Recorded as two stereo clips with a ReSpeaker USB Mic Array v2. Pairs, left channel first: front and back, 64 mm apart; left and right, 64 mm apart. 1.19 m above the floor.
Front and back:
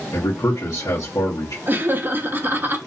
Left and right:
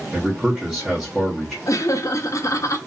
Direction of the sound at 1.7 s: 120° left.